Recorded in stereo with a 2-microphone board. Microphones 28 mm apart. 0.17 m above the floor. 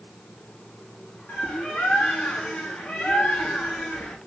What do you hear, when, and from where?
1.3 s a bird: 75° left (ahead or behind), 2.5 m